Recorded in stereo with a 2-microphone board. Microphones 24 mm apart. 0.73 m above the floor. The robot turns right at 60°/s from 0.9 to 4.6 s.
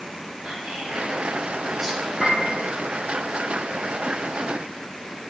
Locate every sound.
0.4 s whispering: 55° right (ahead or behind), 1.1 m; by 2.1 s 10° left (ahead or behind), 1.1 m
2.2 s a piano: 20° right (ahead or behind), 1.8 m; by 2.5 s centre (ahead or behind), 1.8 m